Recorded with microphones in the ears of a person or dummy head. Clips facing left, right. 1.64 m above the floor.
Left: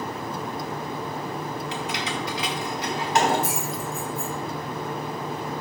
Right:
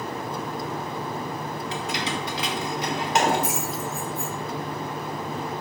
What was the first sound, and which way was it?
Keys jangling, 35° right (ahead or behind).